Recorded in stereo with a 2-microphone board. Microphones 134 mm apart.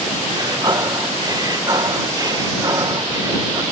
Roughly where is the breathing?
Right.